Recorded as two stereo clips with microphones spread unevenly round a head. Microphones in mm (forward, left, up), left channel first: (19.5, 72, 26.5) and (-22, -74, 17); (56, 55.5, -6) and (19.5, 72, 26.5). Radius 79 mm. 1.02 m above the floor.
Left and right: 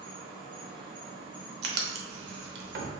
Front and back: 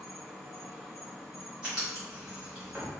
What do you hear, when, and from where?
0.0 s an insect: 60° right, 0.8 m
1.6 s writing: 130° right, 0.6 m